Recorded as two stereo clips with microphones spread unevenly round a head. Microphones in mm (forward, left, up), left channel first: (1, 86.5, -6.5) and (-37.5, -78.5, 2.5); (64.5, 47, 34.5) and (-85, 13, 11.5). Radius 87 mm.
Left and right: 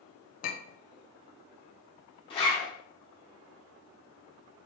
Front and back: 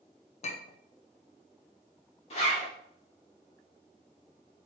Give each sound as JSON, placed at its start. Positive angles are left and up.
{"t": 0.4, "sound": "a clink", "azimuth_deg": 40, "distance_m": 0.5}
{"t": 2.3, "sound": "a zipper", "azimuth_deg": 20, "distance_m": 1.3}